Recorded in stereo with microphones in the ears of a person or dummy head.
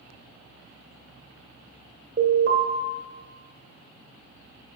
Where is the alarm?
35° right (ahead or behind), 1.6 m.